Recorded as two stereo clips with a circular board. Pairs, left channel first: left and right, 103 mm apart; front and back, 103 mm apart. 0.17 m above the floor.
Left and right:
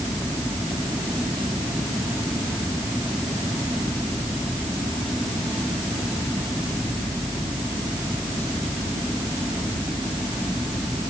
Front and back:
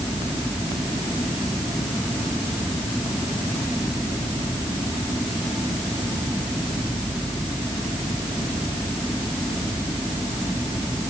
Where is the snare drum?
No snare drum in this recording.